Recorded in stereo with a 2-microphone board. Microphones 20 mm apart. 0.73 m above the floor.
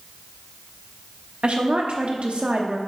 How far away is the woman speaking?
About 1.0 m.